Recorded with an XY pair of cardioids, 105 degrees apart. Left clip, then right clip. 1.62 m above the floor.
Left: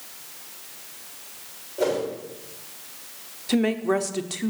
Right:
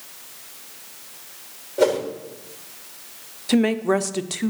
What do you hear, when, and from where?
1.8 s a whoosh: 65° right, 3 m
3.5 s a woman speaking: 20° right, 0.7 m